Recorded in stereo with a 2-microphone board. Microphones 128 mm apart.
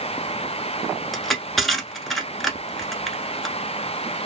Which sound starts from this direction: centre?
Crushing, at 1.1 s.